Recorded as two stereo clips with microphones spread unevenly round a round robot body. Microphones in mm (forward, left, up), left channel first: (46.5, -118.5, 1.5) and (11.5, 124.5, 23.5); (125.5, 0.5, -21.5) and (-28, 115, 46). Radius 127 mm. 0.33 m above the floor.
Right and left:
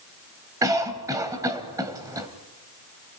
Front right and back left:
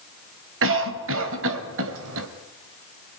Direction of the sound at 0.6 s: 175° left.